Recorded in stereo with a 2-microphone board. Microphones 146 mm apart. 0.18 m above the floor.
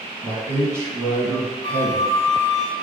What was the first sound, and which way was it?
A man speaking, 20° right (ahead or behind).